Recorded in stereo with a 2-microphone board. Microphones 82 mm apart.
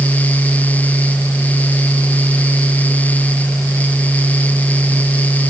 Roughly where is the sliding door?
No sliding door in this recording.